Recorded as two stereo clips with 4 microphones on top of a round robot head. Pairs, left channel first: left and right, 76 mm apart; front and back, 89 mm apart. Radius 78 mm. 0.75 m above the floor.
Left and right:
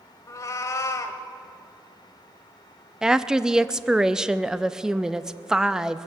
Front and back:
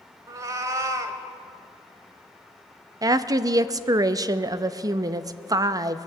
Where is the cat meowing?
130° left, 0.8 m.